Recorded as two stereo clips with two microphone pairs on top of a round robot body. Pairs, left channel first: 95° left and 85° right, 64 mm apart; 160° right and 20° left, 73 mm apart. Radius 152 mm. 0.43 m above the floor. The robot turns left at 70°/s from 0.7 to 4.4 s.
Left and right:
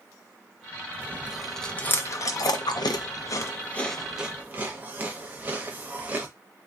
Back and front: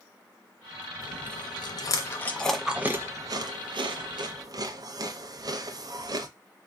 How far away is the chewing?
About 0.6 m.